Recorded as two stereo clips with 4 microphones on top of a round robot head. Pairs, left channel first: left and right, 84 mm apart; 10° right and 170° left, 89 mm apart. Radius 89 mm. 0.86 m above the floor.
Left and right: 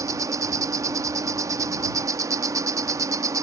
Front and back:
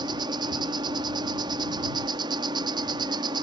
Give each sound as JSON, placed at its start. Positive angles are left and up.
{"t": 0.0, "sound": "an insect", "azimuth_deg": -140}